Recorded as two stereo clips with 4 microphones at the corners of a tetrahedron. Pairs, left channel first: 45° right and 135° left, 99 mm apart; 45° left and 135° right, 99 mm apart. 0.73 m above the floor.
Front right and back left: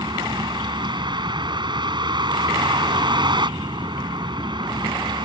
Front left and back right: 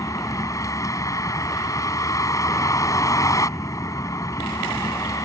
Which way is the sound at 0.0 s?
100° left.